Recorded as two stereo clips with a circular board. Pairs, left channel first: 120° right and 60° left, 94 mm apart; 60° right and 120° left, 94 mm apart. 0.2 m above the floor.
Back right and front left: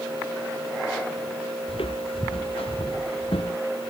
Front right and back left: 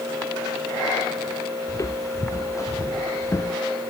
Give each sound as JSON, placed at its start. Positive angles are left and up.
{"t": 1.7, "sound": "footsteps", "azimuth_deg": -115}